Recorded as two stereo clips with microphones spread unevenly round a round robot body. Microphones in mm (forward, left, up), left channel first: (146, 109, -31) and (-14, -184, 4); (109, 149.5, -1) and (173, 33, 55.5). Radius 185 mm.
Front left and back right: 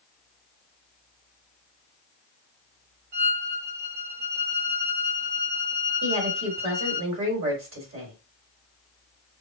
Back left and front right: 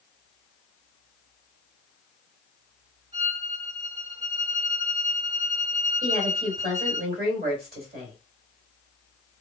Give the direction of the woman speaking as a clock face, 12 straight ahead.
2 o'clock.